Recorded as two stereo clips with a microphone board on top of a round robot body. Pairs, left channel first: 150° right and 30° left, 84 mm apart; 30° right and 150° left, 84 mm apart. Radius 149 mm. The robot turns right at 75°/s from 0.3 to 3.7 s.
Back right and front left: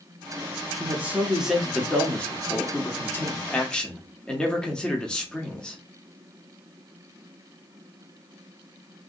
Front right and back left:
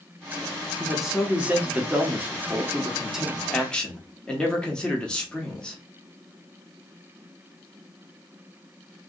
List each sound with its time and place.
0.8 s a man speaking: 55° left, 1.1 m; by 5.8 s 90° right, 1.1 m